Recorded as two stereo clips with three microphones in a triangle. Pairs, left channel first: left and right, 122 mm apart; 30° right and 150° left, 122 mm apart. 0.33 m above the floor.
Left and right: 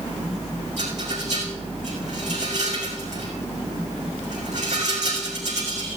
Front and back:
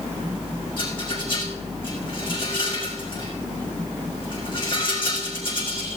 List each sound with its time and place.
0.8 s a rattle: 75° right, 4.5 m